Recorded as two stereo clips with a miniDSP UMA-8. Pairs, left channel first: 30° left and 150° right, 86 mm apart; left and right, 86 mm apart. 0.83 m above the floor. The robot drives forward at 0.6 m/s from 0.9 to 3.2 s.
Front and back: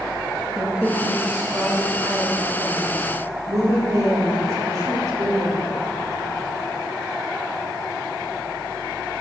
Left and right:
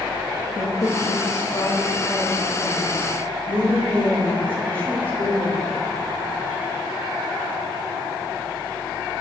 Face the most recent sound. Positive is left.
turn(degrees=165)